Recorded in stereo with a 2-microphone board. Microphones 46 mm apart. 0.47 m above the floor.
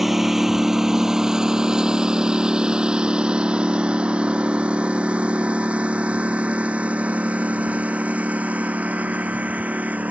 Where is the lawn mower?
5° right (ahead or behind); by 10.1 s 35° right (ahead or behind).